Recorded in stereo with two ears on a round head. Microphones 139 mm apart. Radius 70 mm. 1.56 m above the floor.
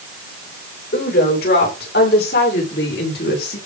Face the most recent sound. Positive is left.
turn(degrees=75)  # may be behind; listen again after turning